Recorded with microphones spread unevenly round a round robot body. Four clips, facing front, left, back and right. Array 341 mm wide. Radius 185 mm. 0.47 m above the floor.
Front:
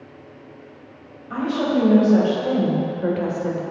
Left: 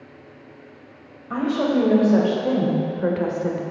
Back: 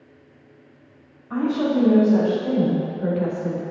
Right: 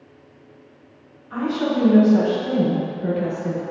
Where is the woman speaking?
85° left, 2.5 m; by 3.6 s 60° left, 1.7 m.